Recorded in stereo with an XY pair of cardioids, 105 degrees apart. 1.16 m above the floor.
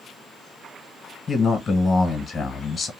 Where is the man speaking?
35° left, 0.8 m.